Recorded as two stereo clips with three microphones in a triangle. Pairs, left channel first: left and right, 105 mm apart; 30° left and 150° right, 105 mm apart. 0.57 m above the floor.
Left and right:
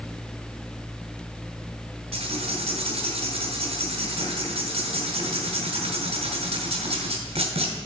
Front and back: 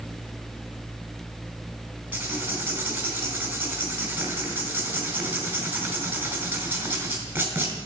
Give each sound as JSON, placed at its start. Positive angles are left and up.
{"t": 2.1, "sound": "writing", "azimuth_deg": -75, "distance_m": 2.5}